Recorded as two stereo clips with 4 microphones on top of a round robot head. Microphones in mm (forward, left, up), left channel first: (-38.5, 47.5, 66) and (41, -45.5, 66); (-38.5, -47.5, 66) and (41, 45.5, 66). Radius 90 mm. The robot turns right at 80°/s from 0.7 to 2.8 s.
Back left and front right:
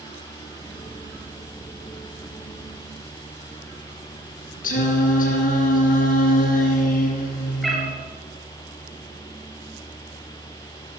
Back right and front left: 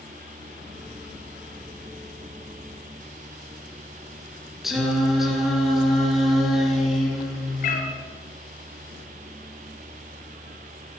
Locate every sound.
4.6 s singing: 135° left, 3 m
7.6 s a cat meowing: 140° right, 3 m